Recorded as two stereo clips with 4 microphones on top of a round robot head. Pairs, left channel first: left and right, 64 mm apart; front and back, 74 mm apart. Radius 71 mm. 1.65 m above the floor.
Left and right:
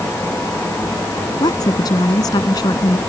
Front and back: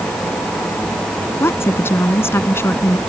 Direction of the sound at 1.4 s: 55° left.